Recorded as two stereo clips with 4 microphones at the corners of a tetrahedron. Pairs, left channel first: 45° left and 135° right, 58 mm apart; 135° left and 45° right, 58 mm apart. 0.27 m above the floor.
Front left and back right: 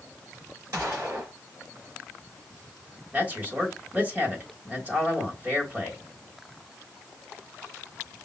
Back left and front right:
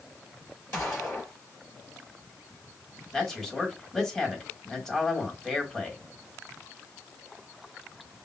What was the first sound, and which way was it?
A gunshot, 175° right.